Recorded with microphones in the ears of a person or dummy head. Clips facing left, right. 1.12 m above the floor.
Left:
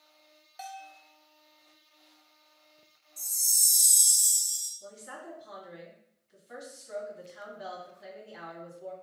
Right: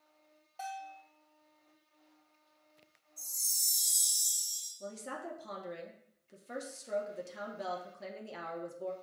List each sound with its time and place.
0.6 s a bell: 20° left (ahead or behind), 1.0 m
3.2 s a chime: 45° left (ahead or behind), 2 m
4.8 s a woman speaking: 65° right (ahead or behind), 0.7 m